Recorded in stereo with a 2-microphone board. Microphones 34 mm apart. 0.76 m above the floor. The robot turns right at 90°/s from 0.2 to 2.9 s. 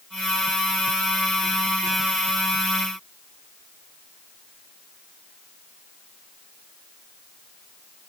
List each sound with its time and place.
Only background noise.